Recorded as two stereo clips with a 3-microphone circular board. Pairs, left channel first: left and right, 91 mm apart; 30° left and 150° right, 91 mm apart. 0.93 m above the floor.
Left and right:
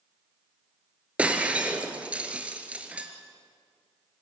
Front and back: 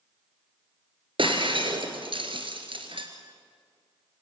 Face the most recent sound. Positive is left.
turn(degrees=-165)